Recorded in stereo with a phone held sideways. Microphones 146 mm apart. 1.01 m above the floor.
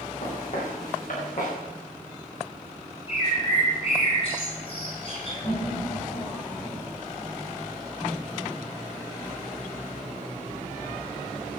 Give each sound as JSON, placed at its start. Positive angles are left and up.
{"t": 0.2, "sound": "footsteps", "side_deg": 60, "distance_m": 6.5}
{"t": 3.1, "sound": "a bird", "side_deg": 45, "distance_m": 6.5}
{"t": 5.4, "sound": "laughter", "side_deg": 70, "distance_m": 5.0}